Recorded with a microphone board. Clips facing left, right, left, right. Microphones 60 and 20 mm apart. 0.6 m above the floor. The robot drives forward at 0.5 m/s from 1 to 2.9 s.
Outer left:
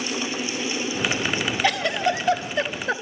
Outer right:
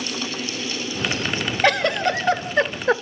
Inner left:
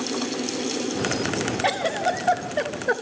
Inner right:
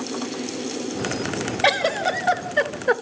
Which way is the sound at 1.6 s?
60° right (ahead or behind).